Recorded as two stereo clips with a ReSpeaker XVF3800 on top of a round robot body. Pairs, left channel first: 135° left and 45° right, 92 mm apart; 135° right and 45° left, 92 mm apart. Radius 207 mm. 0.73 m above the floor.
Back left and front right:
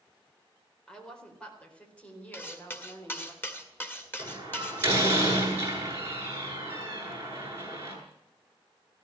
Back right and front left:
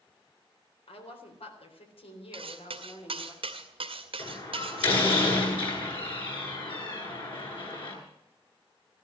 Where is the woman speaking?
140° right, 4.5 m; by 3.3 s 155° right, 5 m.